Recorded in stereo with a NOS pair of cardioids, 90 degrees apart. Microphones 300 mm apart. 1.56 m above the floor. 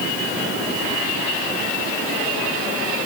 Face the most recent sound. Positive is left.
No sound to turn to.